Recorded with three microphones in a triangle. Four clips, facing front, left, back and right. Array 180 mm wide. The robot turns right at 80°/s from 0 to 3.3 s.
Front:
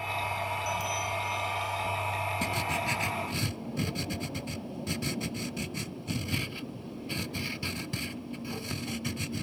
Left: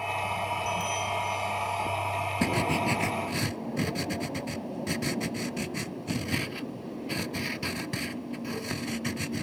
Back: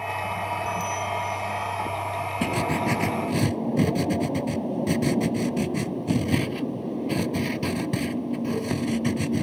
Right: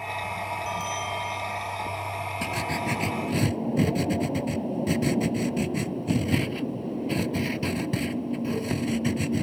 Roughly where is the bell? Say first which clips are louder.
Even, back 5 dB; behind right.